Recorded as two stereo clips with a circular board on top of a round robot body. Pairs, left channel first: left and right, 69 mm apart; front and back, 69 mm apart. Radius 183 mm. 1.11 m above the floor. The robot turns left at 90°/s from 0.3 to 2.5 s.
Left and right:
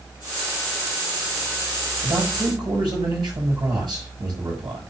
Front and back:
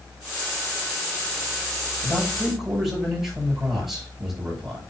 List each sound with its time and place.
2.0 s a man speaking: 50° right, 6.5 m; by 4.8 s 95° right, 6.5 m